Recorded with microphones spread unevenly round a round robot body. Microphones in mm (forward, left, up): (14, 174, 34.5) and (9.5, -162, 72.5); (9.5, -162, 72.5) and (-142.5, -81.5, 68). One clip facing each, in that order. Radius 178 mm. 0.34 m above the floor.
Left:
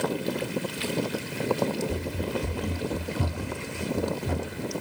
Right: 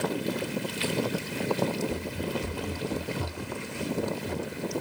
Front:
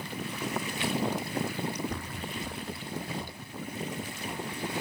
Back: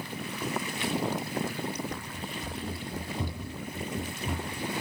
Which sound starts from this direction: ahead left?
Running footsteps, at 1.9 s.